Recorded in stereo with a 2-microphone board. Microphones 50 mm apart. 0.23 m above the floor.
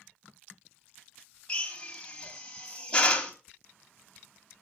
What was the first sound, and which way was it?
A drill, 20° left (ahead or behind).